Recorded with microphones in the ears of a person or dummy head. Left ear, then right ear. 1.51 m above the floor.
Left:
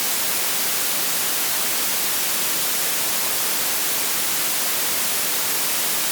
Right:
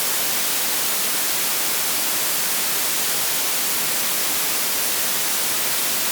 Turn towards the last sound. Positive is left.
No sound to turn to.